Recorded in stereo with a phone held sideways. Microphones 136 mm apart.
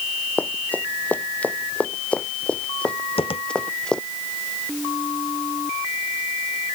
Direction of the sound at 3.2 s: 45° left (ahead or behind).